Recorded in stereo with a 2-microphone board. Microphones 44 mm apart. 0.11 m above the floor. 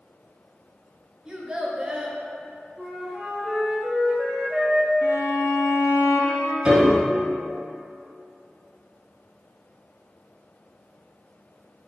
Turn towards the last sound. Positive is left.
turn(degrees=-20)  # may be behind; listen again after turning